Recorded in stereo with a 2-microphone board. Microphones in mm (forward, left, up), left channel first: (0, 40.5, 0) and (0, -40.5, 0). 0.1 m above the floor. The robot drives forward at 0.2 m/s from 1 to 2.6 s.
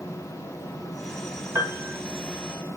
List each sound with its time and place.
1.6 s a piano: 35° right (ahead or behind), 0.6 m; by 2.0 s 30° right (ahead or behind), 0.7 m